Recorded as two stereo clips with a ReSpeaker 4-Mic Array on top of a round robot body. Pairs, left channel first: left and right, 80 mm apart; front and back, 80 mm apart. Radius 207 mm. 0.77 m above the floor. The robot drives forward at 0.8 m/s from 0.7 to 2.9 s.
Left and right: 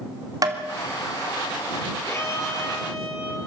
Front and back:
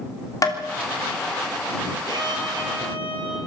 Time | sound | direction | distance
0.4 | tapping | 50° right | 3.5 m
2.0 | a violin | 145° left | 4.5 m